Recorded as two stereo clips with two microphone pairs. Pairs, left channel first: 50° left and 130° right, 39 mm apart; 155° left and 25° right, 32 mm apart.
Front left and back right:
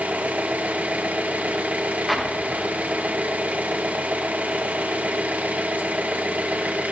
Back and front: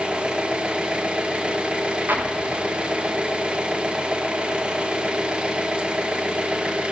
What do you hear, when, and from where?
0.0 s an engine running: 80° right, 0.9 m
2.1 s an explosion: 40° right, 1.5 m